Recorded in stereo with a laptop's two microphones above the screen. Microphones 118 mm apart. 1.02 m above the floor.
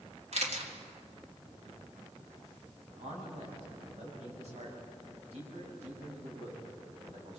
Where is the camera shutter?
70° right (ahead or behind), 2.5 m.